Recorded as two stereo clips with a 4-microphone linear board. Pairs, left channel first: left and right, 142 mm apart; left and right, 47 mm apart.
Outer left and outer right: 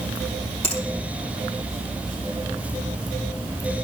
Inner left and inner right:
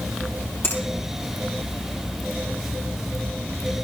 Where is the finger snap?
50° left (ahead or behind), 4.5 m.